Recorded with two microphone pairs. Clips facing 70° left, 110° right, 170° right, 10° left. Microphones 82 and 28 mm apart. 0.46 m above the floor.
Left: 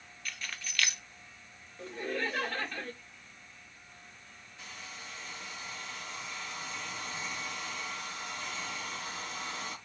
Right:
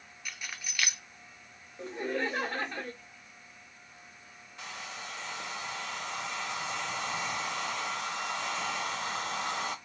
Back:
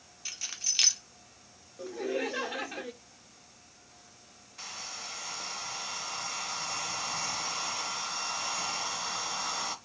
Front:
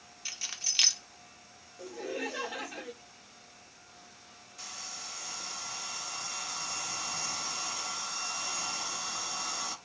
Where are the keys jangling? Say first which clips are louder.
Even, even; 60° right, 0.6 m.